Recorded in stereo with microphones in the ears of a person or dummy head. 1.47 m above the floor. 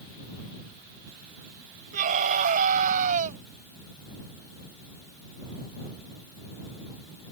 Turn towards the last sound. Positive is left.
turn(degrees=-40)  # may be behind; listen again after turning